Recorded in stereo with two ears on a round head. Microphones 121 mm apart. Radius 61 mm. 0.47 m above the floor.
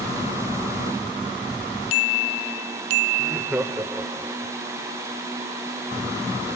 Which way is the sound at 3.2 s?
5° right (ahead or behind).